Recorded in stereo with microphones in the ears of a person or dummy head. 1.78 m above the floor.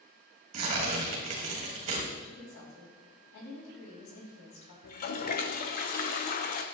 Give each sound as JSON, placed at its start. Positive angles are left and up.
{"t": 0.5, "sound": "tearing paper", "side_deg": -40, "distance_m": 1.6}
{"t": 2.2, "sound": "a woman speaking", "side_deg": 55, "distance_m": 3.0}
{"t": 4.8, "sound": "a toilet flushing", "side_deg": 45, "distance_m": 0.7}